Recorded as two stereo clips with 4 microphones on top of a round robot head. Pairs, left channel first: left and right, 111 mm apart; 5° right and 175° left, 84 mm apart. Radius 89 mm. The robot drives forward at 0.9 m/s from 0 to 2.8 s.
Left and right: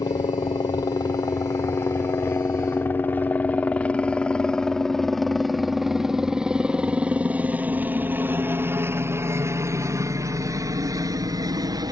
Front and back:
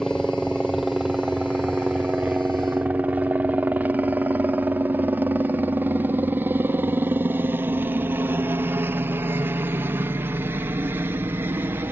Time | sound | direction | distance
0.0 | a helicopter | 80° left | ?